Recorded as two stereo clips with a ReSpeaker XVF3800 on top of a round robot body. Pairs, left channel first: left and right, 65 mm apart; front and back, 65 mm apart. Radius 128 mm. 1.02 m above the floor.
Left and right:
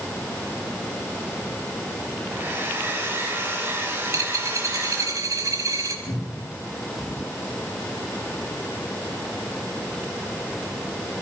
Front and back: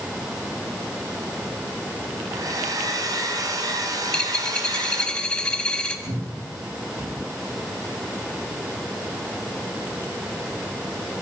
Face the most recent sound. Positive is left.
turn(degrees=145)